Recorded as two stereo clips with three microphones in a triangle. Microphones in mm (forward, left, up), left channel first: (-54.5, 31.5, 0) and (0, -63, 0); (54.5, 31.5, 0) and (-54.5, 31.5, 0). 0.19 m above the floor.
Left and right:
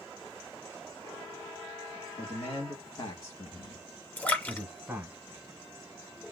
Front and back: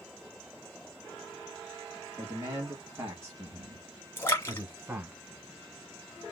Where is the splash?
55° left, 1.4 m.